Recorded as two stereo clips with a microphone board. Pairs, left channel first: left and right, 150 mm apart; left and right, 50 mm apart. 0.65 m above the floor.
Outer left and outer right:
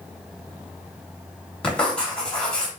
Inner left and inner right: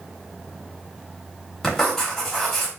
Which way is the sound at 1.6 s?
5° left (ahead or behind).